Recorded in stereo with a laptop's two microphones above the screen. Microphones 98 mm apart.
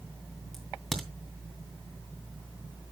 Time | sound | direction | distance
0.5 | a crack | 5° left (ahead or behind) | 2.5 m